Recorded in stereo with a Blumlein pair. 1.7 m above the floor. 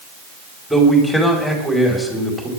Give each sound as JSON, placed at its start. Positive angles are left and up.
{"t": 0.7, "sound": "a man speaking", "azimuth_deg": 0, "distance_m": 5.0}